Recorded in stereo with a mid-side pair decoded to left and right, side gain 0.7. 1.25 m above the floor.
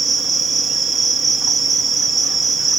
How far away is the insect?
About 0.9 m.